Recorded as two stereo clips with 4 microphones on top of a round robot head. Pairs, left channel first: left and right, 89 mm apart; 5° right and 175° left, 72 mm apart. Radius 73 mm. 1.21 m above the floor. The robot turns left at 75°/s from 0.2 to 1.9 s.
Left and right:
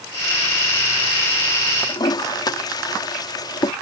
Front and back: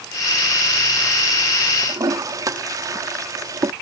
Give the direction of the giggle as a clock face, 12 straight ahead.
No giggle in this recording.